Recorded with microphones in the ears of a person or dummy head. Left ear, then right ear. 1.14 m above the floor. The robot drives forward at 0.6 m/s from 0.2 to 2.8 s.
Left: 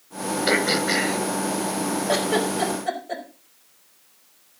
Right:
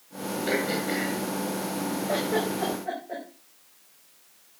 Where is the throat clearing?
40° left (ahead or behind), 2 m; by 1.2 s 50° left (ahead or behind), 1.8 m.